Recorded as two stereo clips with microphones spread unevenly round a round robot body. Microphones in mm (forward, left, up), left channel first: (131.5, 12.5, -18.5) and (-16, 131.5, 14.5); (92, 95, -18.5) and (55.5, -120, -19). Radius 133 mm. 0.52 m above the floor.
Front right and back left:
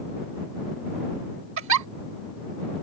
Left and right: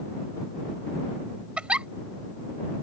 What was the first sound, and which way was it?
A giggle, 175° left.